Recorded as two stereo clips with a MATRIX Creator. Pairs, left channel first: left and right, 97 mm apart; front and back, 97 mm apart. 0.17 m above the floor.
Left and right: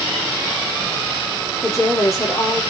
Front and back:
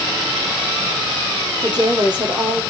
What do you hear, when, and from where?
1.6 s a woman speaking: 145° left, 4.5 m